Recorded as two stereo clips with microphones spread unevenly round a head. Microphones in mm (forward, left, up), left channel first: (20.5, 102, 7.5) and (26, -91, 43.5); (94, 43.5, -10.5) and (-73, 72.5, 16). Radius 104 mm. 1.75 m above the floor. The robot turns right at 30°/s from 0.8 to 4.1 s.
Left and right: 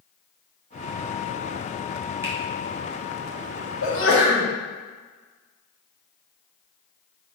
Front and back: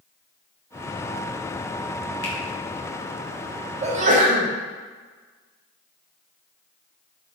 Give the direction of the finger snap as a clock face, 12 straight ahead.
12 o'clock.